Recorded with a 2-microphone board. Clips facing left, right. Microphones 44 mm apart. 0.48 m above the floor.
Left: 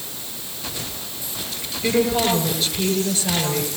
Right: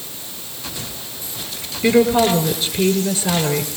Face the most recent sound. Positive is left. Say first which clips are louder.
# right 5 dB
turn(degrees=-35)  # may be behind; listen again after turning